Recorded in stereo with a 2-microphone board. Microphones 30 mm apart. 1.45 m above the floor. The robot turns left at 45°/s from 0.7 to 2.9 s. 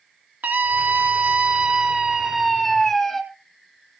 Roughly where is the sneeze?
I don't hear a sneeze.